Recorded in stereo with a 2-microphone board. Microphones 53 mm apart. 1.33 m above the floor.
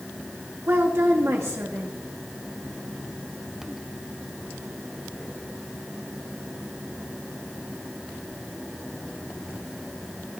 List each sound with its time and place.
0.7 s a woman speaking: 55° right (ahead or behind), 1.2 m